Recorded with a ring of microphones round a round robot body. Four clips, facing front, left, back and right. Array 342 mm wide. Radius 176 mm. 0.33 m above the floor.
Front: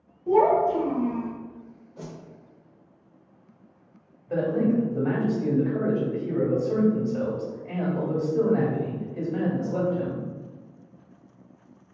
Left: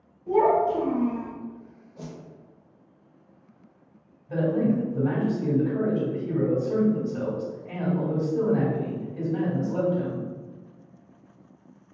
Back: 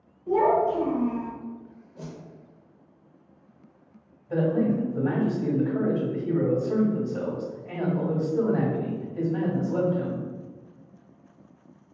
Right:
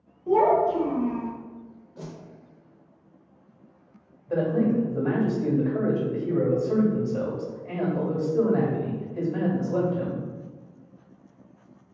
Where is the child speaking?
50° right, 0.9 m; by 1.3 s 105° left, 0.8 m.